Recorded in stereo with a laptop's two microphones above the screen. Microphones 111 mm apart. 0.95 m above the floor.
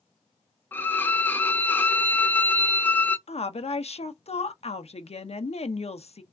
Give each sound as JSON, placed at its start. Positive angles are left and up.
{"t": 0.7, "sound": "a violin", "side_deg": 15, "distance_m": 0.5}
{"t": 3.3, "sound": "a woman speaking", "side_deg": 70, "distance_m": 0.6}